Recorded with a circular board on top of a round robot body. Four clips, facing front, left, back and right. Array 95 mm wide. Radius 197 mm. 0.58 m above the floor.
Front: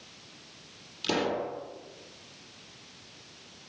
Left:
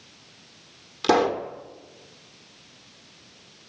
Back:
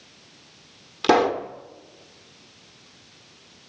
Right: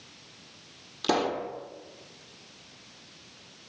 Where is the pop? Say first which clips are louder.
Left 6 dB, back 10 dB; 160° left, 1.8 m.